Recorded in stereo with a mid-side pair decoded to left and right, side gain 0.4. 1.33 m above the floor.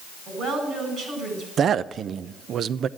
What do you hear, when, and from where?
0.3 s a woman speaking: 70° right, 8 m
1.6 s a man speaking: 65° right, 0.6 m